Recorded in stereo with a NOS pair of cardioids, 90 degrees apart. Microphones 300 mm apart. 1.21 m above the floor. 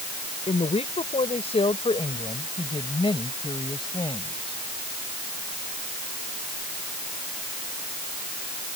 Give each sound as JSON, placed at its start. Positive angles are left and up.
{"t": 0.5, "sound": "a woman speaking", "azimuth_deg": 20}